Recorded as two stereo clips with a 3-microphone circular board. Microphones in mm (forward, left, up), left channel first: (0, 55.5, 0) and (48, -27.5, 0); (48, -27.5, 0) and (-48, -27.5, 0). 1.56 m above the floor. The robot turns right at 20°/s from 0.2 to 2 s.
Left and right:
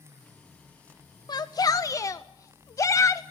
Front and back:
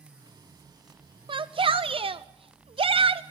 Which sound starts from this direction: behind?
A shout, at 1.3 s.